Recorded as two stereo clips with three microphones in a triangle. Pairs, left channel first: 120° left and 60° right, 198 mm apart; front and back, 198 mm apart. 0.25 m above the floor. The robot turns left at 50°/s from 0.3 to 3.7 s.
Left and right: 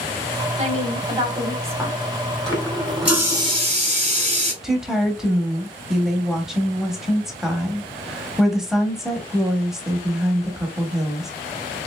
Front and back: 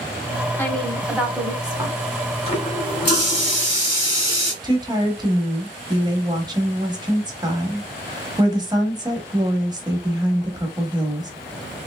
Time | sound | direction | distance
0.6 | a woman speaking | 70° right | 1.2 m
2.5 | a running tap | 55° left | 2.0 m
4.6 | a woman speaking | 145° right | 0.9 m